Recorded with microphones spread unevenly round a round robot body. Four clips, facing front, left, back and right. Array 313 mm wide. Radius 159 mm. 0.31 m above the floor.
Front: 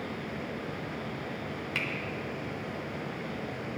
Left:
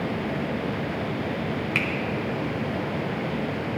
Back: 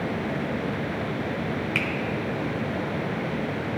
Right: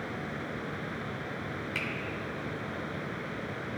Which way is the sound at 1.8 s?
115° left.